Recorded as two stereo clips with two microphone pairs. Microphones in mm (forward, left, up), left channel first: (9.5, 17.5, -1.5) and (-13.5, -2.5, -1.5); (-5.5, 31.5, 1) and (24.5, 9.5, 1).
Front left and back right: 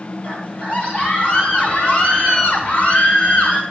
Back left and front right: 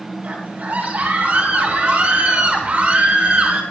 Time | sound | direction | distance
0.2 | a scream | straight ahead | 6.5 m